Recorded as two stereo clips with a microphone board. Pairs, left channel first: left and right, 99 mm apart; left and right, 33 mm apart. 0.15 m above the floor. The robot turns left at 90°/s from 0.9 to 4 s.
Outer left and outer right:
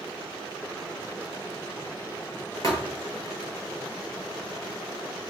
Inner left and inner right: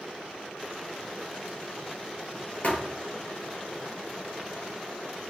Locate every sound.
2.6 s a thud: 40° left (ahead or behind), 1.0 m; by 2.9 s 15° left (ahead or behind), 1.0 m